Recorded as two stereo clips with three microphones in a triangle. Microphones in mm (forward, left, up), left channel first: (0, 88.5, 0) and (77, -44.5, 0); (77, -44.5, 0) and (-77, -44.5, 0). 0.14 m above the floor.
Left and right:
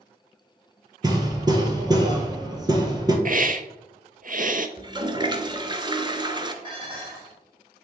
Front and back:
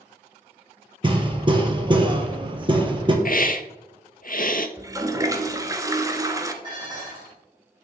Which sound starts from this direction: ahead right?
A hiss, at 3.2 s.